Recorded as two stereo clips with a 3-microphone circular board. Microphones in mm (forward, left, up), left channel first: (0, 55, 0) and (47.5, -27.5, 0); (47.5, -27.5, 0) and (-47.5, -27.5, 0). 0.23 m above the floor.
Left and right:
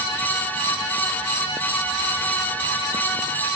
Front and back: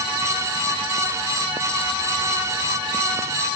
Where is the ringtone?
I don't hear a ringtone.